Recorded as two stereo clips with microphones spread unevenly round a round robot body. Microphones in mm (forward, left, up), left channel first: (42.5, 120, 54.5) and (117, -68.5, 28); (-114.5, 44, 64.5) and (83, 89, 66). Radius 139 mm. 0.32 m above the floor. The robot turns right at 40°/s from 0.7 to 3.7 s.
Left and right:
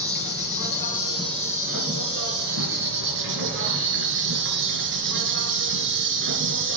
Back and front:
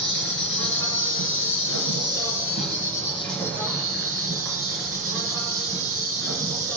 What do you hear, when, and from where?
0.0 s an insect: 175° left, 1.6 m; by 6.8 s 65° right, 1.6 m